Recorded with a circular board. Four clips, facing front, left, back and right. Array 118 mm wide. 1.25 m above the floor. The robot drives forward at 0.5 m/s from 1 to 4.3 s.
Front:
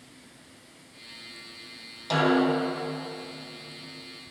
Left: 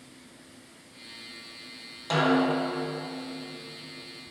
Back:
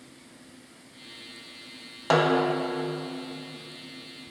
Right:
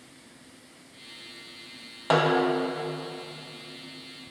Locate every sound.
2.1 s a snare drum: 140° right, 0.7 m; by 2.7 s 155° right, 1.0 m